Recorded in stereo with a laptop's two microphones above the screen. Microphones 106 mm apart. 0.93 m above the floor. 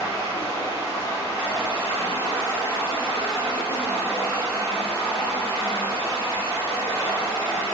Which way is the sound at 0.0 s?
80° right.